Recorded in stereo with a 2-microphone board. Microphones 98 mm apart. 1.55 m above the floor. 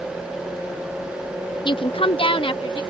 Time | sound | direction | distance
1.6 | a woman speaking | 60° left (ahead or behind) | ?